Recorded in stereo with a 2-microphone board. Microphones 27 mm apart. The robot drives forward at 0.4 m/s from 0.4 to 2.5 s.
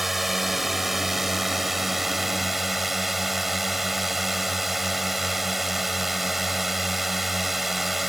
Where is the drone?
5° right (ahead or behind).